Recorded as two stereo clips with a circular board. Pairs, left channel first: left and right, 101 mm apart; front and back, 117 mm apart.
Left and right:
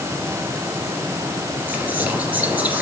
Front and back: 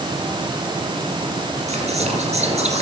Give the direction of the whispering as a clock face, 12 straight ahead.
5 o'clock.